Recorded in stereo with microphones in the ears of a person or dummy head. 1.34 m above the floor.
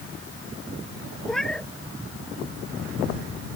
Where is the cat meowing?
Centre (ahead or behind).